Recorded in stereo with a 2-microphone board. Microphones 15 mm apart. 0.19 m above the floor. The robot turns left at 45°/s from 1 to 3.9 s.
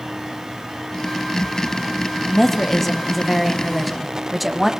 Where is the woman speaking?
20° left (ahead or behind), 1.1 m; by 4.7 s 5° right (ahead or behind), 1.1 m.